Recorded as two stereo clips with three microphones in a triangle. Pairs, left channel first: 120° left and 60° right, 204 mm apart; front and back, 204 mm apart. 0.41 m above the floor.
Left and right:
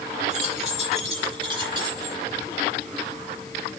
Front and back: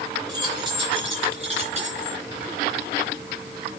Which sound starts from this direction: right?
Keys jangling, at 0.3 s.